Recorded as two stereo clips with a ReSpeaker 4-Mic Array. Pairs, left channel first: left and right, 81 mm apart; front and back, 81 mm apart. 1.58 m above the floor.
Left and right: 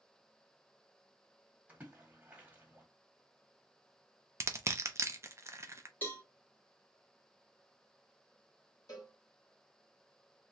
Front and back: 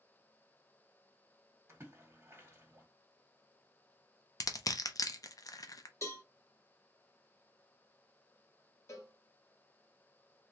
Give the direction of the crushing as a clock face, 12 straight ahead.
1 o'clock.